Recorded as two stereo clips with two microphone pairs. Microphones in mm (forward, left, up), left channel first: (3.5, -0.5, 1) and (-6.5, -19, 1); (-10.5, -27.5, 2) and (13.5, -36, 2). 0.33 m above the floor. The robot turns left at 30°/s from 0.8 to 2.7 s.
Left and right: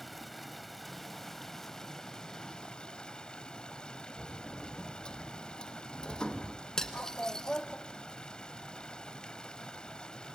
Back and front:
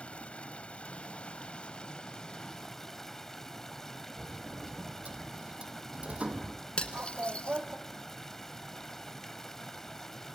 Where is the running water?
145° left, 1.1 m; by 10.4 s 90° left, 1.1 m.